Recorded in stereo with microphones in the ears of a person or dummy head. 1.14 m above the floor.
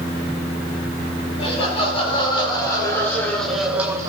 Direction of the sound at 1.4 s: 35° left (ahead or behind).